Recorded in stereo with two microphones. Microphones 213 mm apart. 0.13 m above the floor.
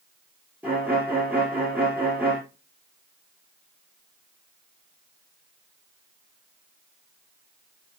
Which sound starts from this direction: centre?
A violin, at 0.6 s.